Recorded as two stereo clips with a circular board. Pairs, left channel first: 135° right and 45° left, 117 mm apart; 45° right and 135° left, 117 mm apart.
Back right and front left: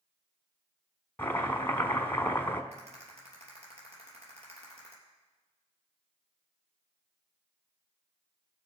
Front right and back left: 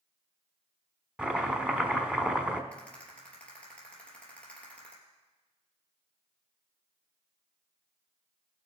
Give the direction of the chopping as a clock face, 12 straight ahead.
5 o'clock.